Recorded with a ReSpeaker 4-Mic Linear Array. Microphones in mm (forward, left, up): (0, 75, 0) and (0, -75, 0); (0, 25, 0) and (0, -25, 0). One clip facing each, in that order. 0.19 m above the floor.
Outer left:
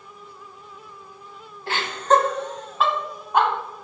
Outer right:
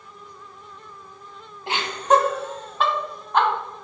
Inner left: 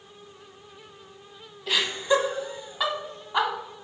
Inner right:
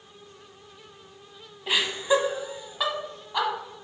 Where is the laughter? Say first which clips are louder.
Even, even; 20° right (ahead or behind), 1.3 m; by 3.5 s 15° left (ahead or behind), 1.3 m.